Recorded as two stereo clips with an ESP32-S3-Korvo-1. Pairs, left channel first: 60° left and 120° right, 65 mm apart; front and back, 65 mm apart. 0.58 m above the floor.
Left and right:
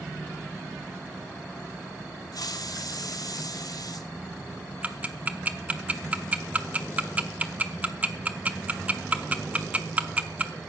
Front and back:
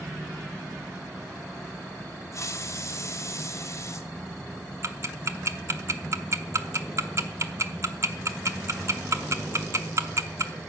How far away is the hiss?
About 1.2 m.